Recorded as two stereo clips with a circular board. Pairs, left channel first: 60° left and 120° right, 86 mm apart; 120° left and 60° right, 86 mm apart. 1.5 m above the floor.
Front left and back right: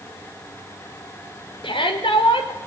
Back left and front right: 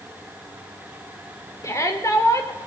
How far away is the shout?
About 4.5 m.